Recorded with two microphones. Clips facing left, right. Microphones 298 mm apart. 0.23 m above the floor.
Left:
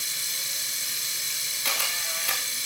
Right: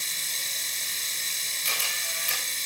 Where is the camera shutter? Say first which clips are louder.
Left 3 dB; 70° left (ahead or behind), 5.5 m.